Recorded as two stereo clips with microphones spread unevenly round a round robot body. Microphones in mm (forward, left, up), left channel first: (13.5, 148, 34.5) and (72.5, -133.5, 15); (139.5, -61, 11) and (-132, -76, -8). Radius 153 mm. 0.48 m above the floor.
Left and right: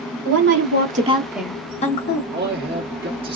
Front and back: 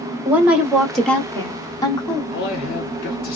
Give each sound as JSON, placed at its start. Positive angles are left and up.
{"t": 0.2, "sound": "a woman speaking", "azimuth_deg": -100, "distance_m": 1.0}
{"t": 2.3, "sound": "a man speaking", "azimuth_deg": -40, "distance_m": 1.5}